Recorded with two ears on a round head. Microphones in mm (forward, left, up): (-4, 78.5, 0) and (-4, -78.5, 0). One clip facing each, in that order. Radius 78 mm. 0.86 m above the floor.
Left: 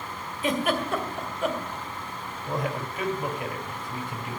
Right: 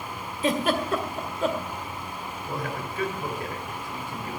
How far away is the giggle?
About 1.8 m.